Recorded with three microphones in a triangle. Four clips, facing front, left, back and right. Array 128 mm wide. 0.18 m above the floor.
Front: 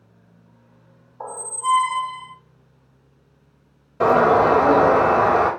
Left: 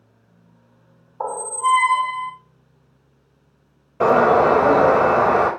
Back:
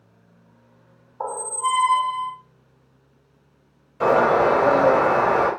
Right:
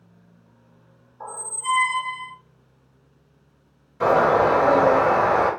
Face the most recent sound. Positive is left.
turn(degrees=45)